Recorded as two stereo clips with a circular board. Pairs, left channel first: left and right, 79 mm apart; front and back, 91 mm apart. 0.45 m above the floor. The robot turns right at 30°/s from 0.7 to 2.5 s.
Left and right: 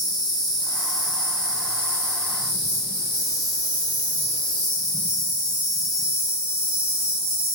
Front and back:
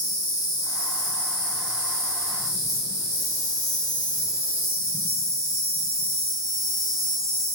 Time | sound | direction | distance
0.0 | an insect | 10° right | 1.3 m